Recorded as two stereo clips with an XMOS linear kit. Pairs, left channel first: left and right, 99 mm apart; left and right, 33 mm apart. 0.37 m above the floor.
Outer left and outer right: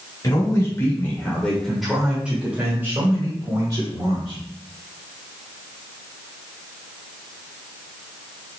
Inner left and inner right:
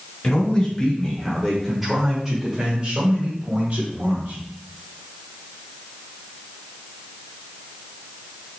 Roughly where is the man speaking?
Left.